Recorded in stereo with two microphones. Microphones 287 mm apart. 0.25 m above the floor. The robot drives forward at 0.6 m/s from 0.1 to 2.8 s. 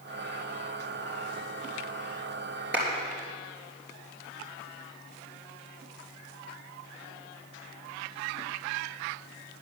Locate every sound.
2.7 s a clap: 40° right (ahead or behind), 4 m